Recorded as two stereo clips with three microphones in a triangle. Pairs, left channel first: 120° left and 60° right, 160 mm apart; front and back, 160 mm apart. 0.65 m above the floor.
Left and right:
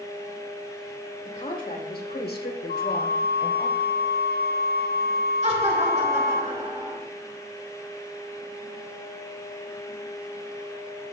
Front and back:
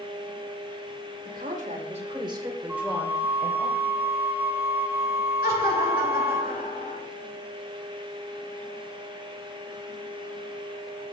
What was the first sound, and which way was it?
A woman speaking, 160° left.